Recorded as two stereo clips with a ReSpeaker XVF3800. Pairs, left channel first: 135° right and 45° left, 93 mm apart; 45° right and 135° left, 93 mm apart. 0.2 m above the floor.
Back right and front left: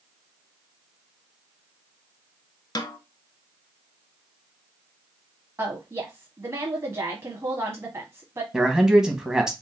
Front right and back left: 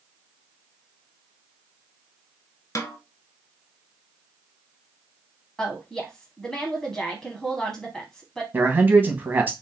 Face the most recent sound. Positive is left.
turn(degrees=115)